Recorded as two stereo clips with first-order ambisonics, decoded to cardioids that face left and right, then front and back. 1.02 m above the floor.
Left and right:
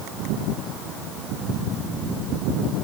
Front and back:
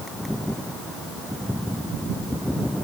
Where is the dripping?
No dripping in this recording.